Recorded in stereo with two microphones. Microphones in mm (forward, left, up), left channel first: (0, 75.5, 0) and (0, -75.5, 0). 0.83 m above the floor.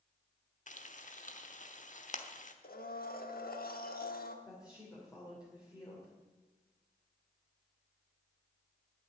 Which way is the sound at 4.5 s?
25° left (ahead or behind).